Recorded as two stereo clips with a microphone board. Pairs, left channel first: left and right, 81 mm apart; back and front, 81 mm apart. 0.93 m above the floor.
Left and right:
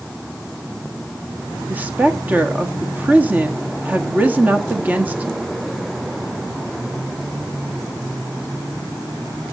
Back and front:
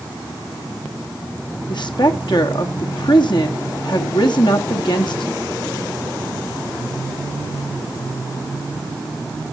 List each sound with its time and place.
1.7 s a woman speaking: 160° right, 1.3 m